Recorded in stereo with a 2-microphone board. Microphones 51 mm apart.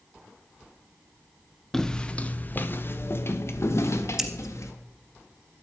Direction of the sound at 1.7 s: 5° left (ahead or behind).